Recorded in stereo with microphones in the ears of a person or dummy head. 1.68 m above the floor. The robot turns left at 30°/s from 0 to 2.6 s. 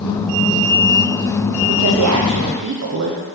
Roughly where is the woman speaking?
Right.